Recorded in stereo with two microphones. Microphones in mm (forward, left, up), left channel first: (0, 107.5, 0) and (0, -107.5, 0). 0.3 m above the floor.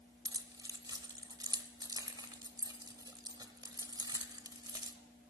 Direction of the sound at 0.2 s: 20° right (ahead or behind).